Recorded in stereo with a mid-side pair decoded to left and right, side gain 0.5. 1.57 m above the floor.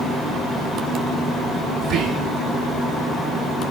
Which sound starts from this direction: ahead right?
Whispering, at 1.8 s.